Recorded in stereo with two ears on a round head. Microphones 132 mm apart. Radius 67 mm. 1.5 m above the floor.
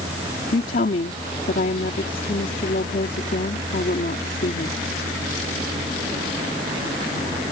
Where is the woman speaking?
55° left (ahead or behind).